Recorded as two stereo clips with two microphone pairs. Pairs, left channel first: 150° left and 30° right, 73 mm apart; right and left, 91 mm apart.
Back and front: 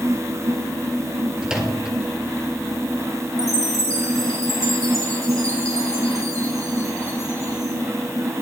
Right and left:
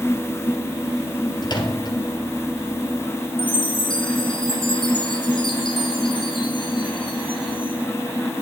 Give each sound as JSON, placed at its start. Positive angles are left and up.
{"t": 1.4, "sound": "a microwave", "azimuth_deg": -110, "distance_m": 2.0}
{"t": 3.4, "sound": "a chime", "azimuth_deg": -75, "distance_m": 3.0}